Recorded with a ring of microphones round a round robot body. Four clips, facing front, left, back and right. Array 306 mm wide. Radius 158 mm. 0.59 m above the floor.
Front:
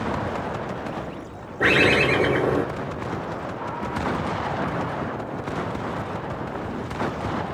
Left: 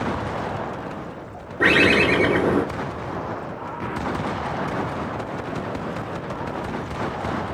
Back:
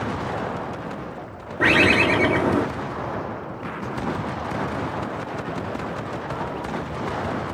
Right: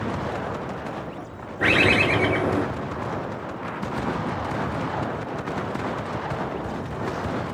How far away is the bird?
About 1.5 m.